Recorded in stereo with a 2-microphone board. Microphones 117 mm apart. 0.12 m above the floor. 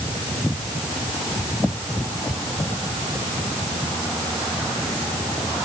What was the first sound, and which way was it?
Only background noise.